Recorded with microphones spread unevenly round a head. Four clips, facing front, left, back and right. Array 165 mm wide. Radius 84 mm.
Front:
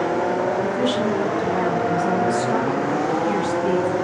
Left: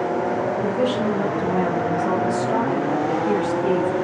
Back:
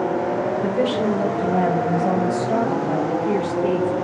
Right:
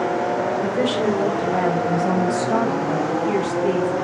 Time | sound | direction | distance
0.6 | a woman speaking | 140° right | 5 m